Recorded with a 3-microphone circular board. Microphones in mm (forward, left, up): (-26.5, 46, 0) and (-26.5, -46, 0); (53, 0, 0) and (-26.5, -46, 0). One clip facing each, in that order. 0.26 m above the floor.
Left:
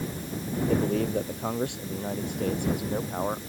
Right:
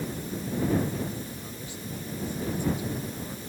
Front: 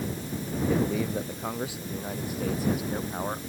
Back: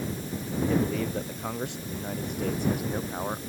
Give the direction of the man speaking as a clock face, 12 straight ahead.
8 o'clock.